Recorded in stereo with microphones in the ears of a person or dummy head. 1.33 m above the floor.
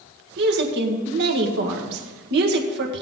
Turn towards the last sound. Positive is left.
turn(degrees=-60)  # may be behind; listen again after turning